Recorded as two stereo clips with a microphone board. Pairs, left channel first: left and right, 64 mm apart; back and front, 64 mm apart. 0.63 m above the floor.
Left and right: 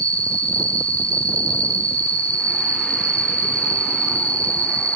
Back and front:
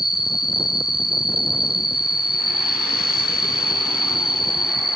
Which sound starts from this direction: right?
An insect, at 0.0 s.